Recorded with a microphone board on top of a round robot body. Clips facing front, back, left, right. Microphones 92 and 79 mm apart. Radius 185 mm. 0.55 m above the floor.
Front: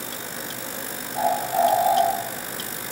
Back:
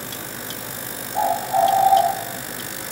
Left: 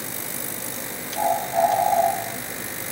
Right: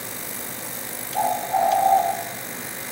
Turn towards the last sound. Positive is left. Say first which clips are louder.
# back 3 dB, even
turn(degrees=-125)